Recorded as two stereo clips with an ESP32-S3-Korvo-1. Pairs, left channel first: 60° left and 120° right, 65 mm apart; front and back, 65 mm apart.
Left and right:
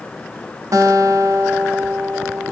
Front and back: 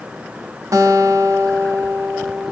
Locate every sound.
0.7 s a guitar: 150° right, 0.8 m